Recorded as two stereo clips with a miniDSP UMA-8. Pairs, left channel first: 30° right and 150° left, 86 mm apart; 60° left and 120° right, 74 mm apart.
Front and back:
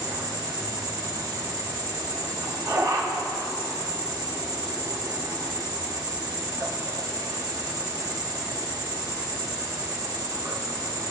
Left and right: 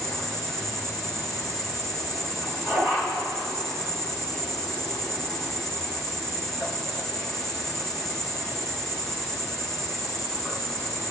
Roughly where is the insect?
Behind.